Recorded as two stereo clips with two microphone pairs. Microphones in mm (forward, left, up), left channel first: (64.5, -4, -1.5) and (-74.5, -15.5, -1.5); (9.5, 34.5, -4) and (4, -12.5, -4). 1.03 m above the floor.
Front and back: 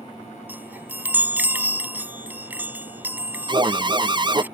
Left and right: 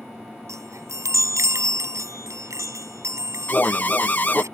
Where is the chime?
100° right.